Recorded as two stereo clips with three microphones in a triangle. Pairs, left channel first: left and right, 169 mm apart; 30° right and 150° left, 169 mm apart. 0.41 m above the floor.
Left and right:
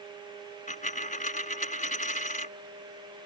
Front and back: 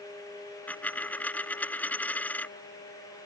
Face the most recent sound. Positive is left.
turn(degrees=50)